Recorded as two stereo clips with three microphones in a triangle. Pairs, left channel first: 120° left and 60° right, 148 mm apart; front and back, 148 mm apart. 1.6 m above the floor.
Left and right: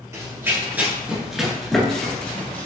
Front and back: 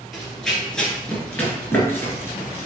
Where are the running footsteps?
90° right, 1.7 m; by 2.7 s 55° left, 1.8 m.